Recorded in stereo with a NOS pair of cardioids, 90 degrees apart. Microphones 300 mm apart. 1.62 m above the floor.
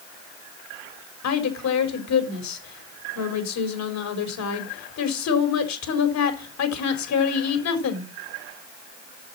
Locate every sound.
1.2 s a woman speaking: 65° left, 4.5 m